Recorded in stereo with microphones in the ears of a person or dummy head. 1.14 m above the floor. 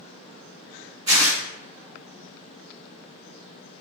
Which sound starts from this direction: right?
Tearing paper, at 1.1 s.